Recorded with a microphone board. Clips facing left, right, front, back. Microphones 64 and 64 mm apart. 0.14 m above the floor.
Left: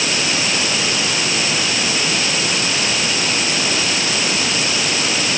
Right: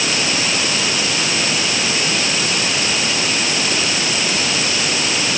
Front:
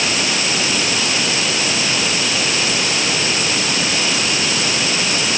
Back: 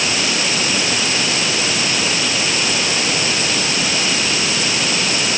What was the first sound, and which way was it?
Only background noise.